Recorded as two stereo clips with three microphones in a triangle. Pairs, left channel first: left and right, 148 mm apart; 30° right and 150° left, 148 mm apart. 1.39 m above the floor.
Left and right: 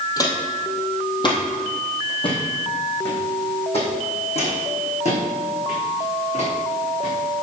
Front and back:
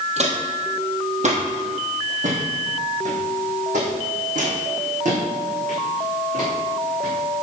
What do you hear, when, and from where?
0.2 s footsteps: 145° left, 2.5 m; by 7.1 s 125° left, 5.5 m